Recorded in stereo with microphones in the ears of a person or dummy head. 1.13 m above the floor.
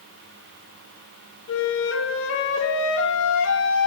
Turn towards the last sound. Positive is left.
turn(degrees=75)  # may be behind; listen again after turning